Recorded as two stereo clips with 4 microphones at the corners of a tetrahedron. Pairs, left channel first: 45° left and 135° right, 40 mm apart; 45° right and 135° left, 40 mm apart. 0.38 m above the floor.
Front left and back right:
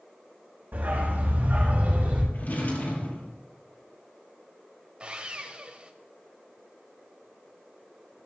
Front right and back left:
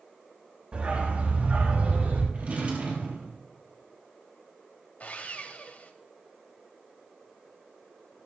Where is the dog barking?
170° right, 5 m; by 2.2 s 170° left, 5.5 m.